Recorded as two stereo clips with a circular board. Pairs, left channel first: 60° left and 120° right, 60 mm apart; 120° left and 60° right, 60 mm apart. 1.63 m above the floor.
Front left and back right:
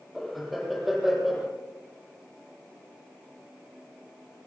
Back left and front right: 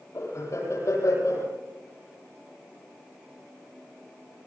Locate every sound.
0.1 s laughter: 150° left, 8.5 m